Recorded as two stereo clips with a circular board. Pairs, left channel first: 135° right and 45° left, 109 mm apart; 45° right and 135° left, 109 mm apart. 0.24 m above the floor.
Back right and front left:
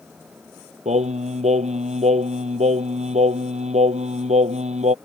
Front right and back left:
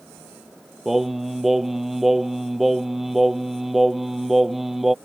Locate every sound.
0.8 s singing: 45° left